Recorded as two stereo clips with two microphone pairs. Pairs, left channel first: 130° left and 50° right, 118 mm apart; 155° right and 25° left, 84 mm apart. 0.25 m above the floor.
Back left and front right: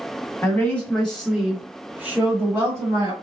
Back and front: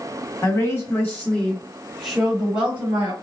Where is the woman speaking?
165° right, 1.4 m; by 3.1 s 25° right, 1.4 m.